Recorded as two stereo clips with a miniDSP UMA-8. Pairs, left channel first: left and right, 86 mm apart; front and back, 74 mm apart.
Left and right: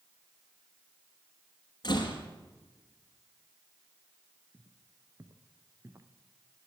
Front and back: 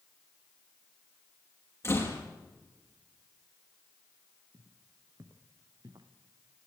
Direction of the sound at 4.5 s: 140° right.